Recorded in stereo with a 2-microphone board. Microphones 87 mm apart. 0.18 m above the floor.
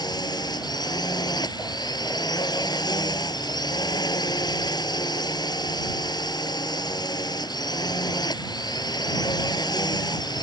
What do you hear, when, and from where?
0.0 s a drone: 50° left (ahead or behind)